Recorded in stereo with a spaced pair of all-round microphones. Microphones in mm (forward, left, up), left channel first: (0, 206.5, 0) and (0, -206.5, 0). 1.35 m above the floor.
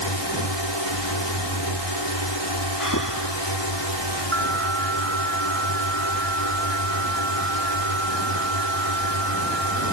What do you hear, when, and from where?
0.0 s a drone: 80° left
2.8 s breathing: 45° left (ahead or behind)
4.3 s an alarm: 30° right (ahead or behind)